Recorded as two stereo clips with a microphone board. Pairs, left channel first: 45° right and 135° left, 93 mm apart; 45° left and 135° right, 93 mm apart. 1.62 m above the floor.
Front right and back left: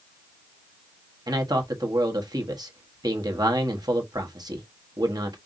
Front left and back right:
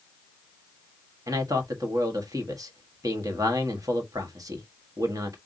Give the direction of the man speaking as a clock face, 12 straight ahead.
6 o'clock.